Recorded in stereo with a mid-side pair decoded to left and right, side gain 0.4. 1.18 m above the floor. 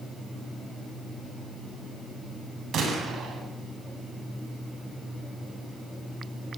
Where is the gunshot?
70° right, 8.5 m.